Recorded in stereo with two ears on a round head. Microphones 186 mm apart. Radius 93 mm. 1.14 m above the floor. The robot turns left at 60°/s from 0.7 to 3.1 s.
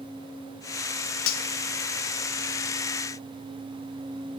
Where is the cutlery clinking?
70° left (ahead or behind), 0.9 m; by 1.4 s 65° left (ahead or behind), 0.9 m.